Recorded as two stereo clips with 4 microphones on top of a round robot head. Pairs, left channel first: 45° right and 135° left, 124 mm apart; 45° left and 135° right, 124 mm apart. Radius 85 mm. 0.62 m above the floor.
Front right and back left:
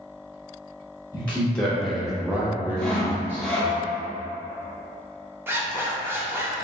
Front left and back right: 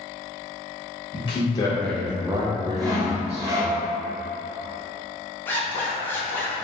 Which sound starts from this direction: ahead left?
A man speaking, at 1.1 s.